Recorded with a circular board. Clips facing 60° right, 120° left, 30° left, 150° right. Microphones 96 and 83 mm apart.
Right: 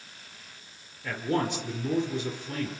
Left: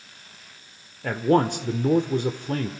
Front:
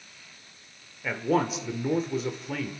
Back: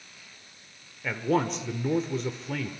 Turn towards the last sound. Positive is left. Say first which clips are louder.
# left 8 dB, front 1 dB
turn(degrees=115)